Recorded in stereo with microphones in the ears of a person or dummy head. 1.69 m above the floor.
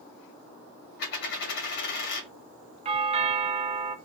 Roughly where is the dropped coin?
Left.